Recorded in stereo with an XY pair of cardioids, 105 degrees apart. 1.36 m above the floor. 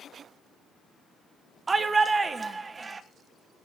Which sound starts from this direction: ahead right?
A shout, at 1.7 s.